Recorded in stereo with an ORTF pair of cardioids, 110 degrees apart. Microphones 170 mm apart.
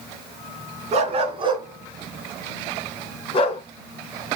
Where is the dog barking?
45° right, 3.5 m; by 3.6 s 40° left, 3 m.